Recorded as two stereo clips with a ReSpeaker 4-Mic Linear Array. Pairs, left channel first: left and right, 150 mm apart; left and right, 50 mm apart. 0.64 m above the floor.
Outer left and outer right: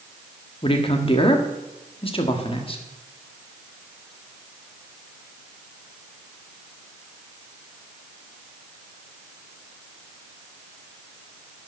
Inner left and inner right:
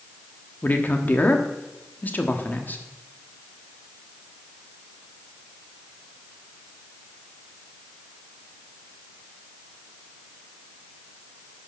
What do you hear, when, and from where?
0.6 s a man speaking: 35° left (ahead or behind), 1.4 m